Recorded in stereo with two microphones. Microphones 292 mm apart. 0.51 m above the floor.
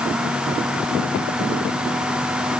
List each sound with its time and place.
Only background noise.